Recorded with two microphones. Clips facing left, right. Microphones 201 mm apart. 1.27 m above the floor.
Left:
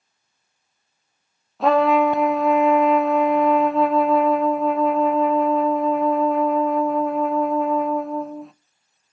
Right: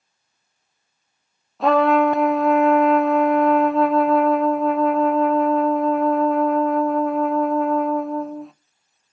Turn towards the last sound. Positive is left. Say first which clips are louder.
# right 1 dB
turn(degrees=0)  # may be behind; listen again after turning